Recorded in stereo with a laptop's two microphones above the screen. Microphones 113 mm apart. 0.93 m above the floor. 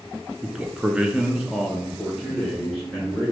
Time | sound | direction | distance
0.4 | a man speaking | 10° right (ahead or behind) | 0.7 m